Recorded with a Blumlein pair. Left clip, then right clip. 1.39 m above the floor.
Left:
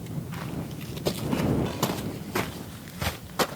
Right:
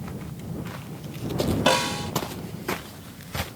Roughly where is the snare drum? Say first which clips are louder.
Right 8 dB; ahead right.